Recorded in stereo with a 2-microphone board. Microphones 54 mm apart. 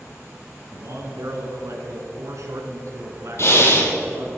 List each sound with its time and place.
0.7 s a man speaking: 65° right (ahead or behind), 2.5 m
3.4 s breathing: 50° left (ahead or behind), 2 m